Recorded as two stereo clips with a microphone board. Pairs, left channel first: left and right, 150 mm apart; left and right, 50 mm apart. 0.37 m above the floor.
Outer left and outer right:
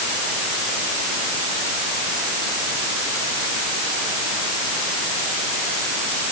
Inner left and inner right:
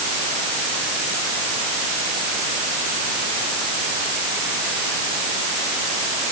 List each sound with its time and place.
Only background noise.